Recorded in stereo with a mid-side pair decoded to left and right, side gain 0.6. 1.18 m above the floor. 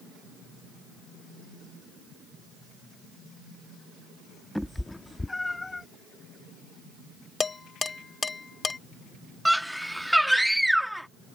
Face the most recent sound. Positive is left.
turn(degrees=0)